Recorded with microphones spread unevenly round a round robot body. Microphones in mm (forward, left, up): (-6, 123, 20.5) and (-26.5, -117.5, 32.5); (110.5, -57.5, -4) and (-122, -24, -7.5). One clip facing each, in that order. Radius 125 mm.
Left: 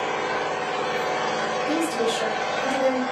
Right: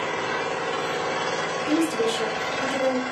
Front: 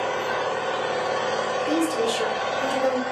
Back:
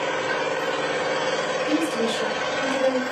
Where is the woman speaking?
45° right, 1.3 m.